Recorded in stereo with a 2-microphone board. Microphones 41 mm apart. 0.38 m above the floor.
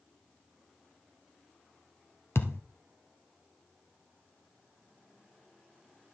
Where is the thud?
85° left, 1.7 m.